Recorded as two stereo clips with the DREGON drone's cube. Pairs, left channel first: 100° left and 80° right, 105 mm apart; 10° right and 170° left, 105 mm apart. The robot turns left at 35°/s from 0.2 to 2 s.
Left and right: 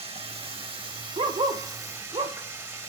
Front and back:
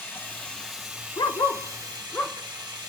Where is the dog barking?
60° right, 1.0 m; by 2.4 s 90° right, 1.0 m.